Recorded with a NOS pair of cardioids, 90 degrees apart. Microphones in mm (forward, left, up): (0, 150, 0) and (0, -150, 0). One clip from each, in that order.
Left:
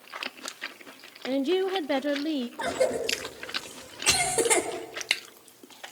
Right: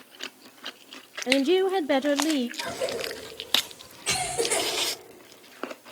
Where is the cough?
65° left, 4 m.